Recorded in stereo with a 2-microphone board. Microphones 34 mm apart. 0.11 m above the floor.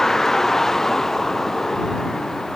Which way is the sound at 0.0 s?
10° left (ahead or behind).